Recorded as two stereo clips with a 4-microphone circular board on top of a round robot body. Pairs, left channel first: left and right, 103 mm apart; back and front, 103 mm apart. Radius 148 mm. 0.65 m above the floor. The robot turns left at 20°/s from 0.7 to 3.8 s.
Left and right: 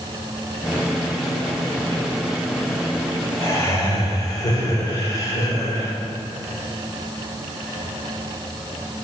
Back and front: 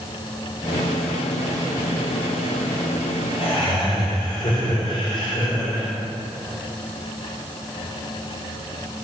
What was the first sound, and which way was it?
Laughter, 155° left.